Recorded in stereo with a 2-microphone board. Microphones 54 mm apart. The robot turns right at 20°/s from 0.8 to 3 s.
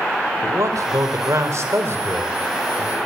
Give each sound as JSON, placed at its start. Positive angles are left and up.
{"t": 0.4, "sound": "a man speaking", "azimuth_deg": -75, "distance_m": 4.5}